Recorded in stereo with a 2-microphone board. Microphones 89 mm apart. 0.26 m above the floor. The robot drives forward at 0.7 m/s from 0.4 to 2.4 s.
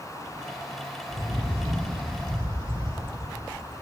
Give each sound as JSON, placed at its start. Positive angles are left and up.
{"t": 1.1, "sound": "a bird", "side_deg": -70, "distance_m": 10.0}